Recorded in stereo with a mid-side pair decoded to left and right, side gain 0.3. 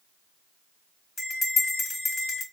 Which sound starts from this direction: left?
A bell, at 1.2 s.